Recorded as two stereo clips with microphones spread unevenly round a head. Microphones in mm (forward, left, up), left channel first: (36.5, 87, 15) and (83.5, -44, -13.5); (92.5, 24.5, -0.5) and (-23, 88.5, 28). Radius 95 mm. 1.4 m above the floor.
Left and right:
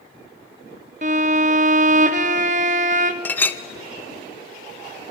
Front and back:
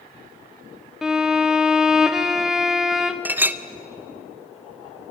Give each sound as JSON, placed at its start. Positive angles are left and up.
{"t": 1.0, "sound": "a violin", "azimuth_deg": -120, "distance_m": 0.6}
{"t": 3.2, "sound": "a clink", "azimuth_deg": 135, "distance_m": 0.6}